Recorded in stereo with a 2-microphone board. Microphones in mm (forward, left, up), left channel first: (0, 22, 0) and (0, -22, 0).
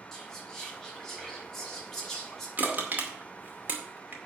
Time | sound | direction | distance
0.1 | whispering | 5° left (ahead or behind) | 5.5 m
2.6 | crushing | 40° right (ahead or behind) | 2 m